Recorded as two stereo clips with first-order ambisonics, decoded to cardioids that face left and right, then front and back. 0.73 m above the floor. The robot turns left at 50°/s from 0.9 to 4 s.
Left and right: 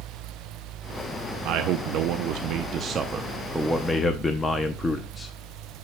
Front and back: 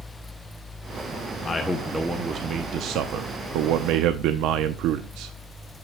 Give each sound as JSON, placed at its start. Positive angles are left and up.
{"t": 1.4, "sound": "a man speaking", "azimuth_deg": -70, "distance_m": 0.7}